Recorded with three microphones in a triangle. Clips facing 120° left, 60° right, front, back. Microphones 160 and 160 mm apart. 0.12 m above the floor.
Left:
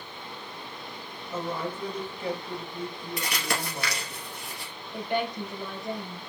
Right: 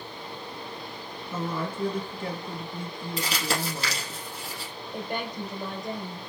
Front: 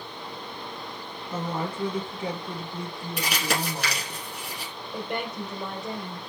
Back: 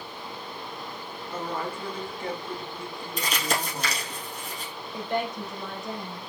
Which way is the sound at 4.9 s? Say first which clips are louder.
Left 4 dB, back 2 dB; 15° right.